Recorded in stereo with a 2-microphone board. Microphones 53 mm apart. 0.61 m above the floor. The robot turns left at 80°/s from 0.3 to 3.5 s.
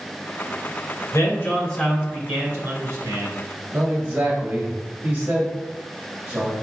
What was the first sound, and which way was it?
A man speaking, 60° left.